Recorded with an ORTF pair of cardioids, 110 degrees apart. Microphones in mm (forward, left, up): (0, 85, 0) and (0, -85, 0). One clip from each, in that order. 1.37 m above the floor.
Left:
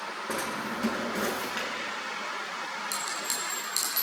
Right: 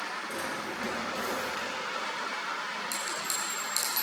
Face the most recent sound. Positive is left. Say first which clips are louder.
# left 1 dB
turn(degrees=0)